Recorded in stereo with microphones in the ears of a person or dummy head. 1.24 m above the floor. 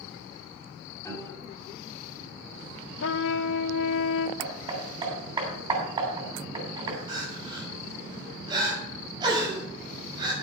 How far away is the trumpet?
About 0.7 m.